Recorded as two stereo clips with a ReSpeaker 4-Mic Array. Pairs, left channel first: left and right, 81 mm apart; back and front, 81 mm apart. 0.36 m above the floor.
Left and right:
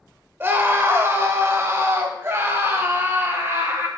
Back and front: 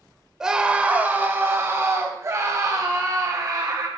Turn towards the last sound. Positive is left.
turn(degrees=-35)